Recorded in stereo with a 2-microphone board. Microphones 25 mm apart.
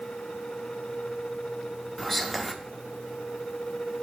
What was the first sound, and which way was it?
Whispering, 5° left (ahead or behind).